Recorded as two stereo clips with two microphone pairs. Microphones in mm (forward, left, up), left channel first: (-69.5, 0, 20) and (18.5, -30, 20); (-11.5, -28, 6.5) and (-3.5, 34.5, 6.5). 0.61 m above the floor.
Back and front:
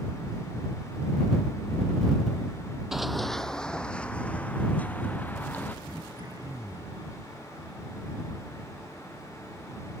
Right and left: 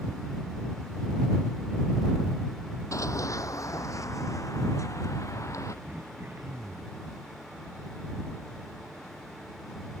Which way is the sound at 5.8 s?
30° left.